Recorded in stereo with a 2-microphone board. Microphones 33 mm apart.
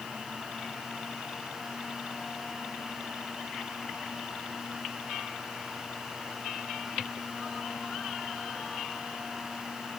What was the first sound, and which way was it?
Only background noise.